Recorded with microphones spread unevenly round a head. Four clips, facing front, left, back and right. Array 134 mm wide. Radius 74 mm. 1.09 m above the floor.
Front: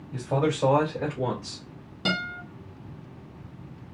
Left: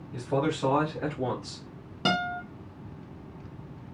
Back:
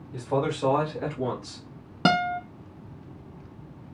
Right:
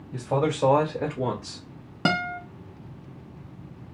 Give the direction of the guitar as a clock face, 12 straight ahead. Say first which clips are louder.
Right 2 dB, back 7 dB; 5 o'clock.